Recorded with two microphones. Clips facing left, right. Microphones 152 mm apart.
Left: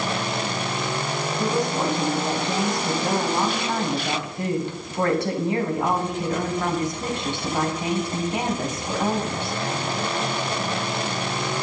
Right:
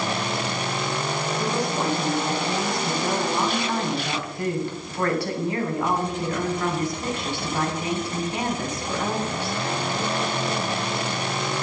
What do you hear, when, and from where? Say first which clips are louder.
1.4 s a woman speaking: left 4 dB; 20° left (ahead or behind), 3 m